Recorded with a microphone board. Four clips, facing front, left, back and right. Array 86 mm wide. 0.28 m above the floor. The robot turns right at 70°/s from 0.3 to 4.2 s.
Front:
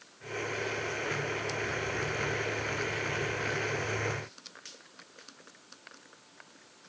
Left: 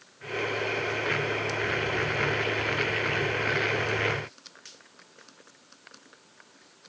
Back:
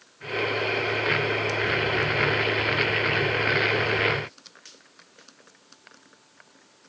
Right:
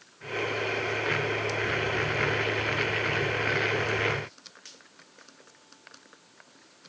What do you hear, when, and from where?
Only background noise.